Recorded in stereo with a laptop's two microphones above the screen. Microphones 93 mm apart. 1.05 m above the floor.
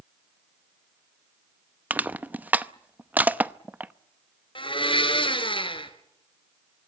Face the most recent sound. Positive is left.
turn(degrees=65)  # may be behind; listen again after turning